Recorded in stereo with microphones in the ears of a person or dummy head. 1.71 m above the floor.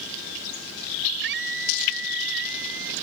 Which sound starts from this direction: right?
A scream, at 1.2 s.